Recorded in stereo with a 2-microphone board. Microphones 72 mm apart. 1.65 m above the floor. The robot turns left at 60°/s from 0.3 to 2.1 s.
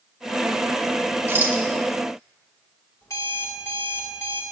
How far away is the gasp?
I don't hear a gasp.